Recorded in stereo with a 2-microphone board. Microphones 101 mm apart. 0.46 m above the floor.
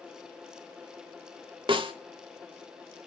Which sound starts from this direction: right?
A snare drum, at 1.7 s.